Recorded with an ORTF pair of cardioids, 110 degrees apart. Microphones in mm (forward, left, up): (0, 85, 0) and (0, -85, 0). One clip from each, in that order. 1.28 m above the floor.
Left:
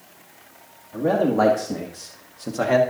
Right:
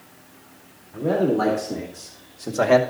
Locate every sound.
0.9 s a man speaking: 65° left, 2.5 m; by 2.8 s 25° right, 1.3 m